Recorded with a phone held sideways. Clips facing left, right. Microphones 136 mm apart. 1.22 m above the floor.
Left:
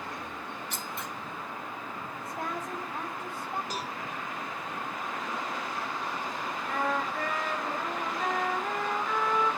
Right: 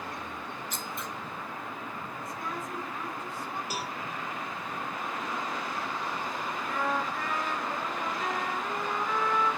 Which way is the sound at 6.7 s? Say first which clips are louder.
Left 1 dB; 60° left (ahead or behind).